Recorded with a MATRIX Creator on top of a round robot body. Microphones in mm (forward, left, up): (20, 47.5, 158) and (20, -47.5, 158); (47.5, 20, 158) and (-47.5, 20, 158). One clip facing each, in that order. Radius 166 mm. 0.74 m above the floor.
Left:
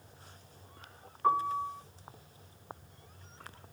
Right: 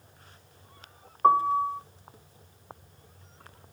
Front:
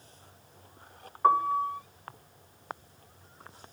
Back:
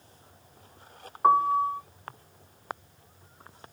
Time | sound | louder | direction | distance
1.2 | a piano | right 8 dB, back 3 dB | 110° right | 1.4 m